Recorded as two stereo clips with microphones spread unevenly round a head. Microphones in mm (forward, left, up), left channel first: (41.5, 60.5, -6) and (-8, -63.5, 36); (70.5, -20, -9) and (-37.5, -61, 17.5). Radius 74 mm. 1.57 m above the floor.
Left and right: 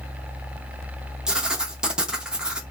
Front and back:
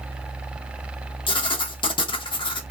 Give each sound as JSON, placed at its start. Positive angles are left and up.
{"t": 1.3, "sound": "writing", "azimuth_deg": -25, "distance_m": 0.7}